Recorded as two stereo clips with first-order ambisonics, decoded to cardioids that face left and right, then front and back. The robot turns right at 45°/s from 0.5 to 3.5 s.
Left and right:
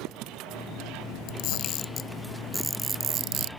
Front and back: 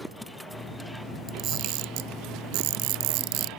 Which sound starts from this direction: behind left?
A camera shutter, at 1.3 s.